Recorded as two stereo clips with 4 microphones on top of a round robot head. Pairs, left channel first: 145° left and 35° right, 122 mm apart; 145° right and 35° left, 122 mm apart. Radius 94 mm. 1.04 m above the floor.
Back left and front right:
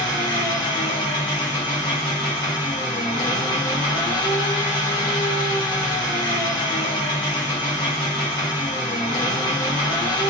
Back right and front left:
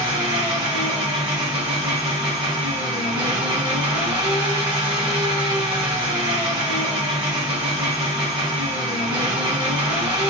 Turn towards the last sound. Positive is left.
turn(degrees=90)